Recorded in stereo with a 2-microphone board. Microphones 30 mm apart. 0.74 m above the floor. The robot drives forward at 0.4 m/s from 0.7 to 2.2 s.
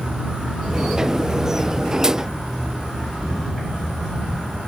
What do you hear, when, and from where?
0.0 s an insect: 30° right (ahead or behind), 1.2 m; by 4.7 s 20° right (ahead or behind), 1.7 m